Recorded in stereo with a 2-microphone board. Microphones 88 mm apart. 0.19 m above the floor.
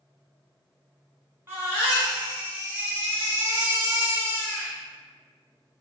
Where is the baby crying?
25° right (ahead or behind), 1.5 m.